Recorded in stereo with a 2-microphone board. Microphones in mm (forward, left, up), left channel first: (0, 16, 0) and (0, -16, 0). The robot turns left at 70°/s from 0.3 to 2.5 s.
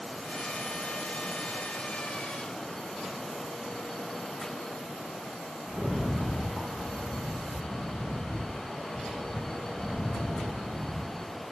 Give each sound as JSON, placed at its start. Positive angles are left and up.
{"t": 5.7, "sound": "a rattle", "side_deg": 10, "distance_m": 2.5}